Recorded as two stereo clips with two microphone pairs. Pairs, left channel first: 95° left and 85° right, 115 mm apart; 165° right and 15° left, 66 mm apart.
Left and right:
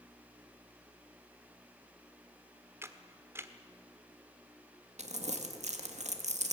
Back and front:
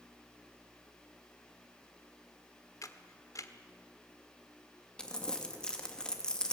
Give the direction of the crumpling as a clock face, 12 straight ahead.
3 o'clock.